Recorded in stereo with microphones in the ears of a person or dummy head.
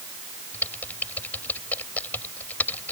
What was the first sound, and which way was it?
Typing on a keyboard, 15° left (ahead or behind).